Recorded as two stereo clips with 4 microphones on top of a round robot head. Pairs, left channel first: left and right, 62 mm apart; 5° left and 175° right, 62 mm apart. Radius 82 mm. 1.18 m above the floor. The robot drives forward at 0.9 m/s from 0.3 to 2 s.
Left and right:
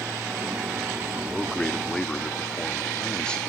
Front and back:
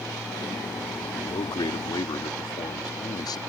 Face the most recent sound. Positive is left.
turn(degrees=15)